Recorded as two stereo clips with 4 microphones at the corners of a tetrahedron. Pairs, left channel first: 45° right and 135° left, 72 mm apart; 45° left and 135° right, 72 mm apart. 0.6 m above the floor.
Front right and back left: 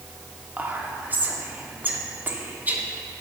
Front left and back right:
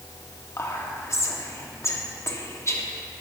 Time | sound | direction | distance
0.6 | whispering | 80° left | 0.8 m